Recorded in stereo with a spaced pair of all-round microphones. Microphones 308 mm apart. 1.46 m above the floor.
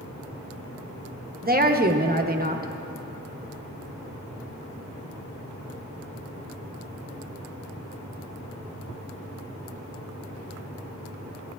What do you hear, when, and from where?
1.4 s a woman speaking: 30° right (ahead or behind), 0.8 m